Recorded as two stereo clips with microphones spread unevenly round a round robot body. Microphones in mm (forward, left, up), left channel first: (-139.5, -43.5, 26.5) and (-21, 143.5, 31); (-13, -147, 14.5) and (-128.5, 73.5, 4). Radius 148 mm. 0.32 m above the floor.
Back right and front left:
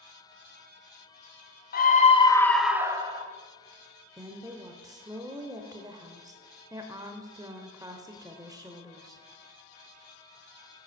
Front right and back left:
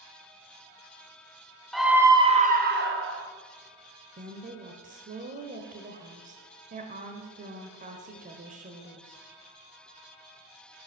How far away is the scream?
About 1.6 m.